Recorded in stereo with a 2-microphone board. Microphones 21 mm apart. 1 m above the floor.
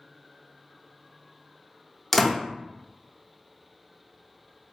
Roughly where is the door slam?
Centre.